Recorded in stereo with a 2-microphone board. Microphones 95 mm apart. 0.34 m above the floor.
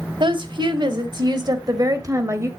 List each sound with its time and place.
0.2 s a woman speaking: 55° right (ahead or behind), 1.7 m; by 2.5 s 30° right (ahead or behind), 1.3 m